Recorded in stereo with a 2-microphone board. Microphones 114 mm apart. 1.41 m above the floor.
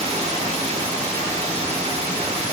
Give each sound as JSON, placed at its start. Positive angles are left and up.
{"t": 0.0, "sound": "running water", "side_deg": -65, "distance_m": 1.7}